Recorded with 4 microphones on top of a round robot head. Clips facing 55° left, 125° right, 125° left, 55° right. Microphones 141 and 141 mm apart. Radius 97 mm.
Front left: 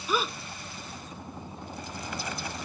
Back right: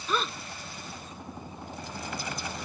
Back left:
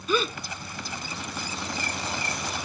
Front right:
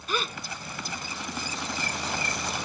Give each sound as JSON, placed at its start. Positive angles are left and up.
{"t": 0.1, "sound": "a gasp", "azimuth_deg": 140}